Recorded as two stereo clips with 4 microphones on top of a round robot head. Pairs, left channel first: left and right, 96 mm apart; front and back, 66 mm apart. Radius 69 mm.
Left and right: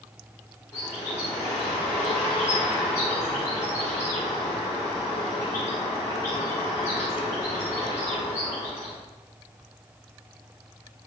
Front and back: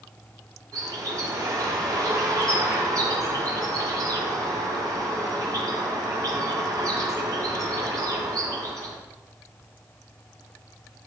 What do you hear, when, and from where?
0.7 s a bird: 155° left, 5 m